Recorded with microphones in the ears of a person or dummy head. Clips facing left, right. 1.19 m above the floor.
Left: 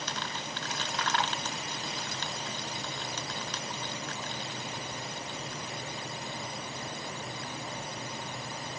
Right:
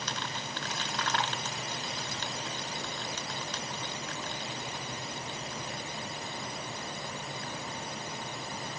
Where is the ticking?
I don't hear ticking.